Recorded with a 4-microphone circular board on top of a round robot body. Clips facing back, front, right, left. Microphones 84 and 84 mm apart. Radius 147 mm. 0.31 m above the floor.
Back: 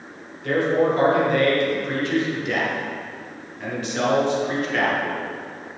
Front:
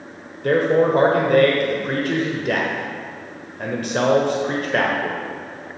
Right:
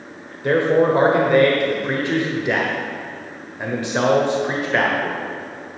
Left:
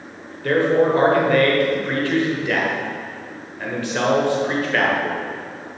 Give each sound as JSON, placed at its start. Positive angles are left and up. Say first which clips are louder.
{"t": 0.4, "sound": "a man speaking", "louder": "front 3 dB, right 1 dB", "azimuth_deg": -25, "distance_m": 1.5}